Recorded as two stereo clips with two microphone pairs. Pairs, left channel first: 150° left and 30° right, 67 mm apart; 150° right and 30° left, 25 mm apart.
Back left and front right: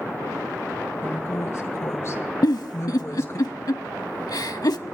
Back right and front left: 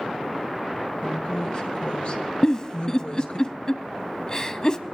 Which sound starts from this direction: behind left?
A giggle, at 2.4 s.